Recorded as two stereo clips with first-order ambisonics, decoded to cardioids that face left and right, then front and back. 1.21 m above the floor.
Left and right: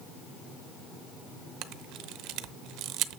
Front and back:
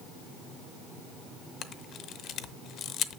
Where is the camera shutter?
55° right, 0.7 m.